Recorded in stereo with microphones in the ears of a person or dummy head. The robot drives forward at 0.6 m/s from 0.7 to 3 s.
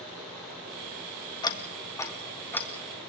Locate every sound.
1.4 s ticking: 25° left (ahead or behind), 0.9 m; by 2.7 s 15° left (ahead or behind), 1.6 m